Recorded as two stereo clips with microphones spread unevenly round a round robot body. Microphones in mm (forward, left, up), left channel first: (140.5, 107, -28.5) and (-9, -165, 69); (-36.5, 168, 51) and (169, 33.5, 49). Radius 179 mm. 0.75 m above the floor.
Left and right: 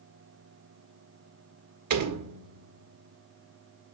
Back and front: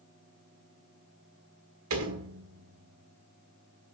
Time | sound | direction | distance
1.9 | a door slam | 80° right | 1.6 m